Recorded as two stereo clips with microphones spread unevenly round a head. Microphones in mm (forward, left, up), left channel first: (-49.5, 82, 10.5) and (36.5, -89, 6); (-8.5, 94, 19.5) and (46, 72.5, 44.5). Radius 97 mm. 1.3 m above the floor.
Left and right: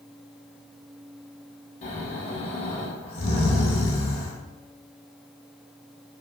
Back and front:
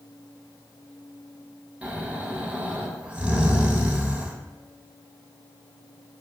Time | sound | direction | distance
1.8 | snoring | 65° left | 0.7 m